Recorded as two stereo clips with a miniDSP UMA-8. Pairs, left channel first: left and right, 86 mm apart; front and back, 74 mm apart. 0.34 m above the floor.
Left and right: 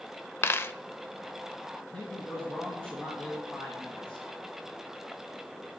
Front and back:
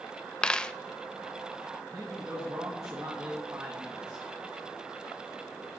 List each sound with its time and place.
0.4 s a dropped coin: 65° left, 0.5 m
1.9 s a man speaking: 160° left, 2.5 m